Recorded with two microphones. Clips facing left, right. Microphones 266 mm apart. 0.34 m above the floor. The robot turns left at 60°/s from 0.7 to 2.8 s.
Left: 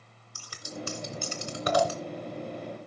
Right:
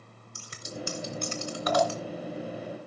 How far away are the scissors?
About 2.5 m.